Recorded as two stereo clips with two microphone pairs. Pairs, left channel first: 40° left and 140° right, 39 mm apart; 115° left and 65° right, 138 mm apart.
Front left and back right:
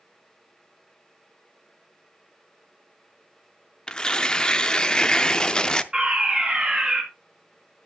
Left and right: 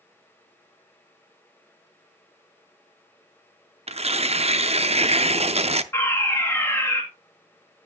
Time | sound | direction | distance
3.9 | tearing paper | 30° right | 0.5 m
5.9 | a fire alarm | 175° left | 1.8 m